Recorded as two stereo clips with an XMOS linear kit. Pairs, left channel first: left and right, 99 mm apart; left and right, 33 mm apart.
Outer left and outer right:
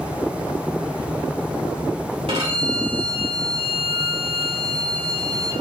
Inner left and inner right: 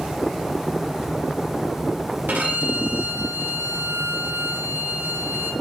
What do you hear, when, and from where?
2.3 s a violin: 70° right (ahead or behind), 2.5 m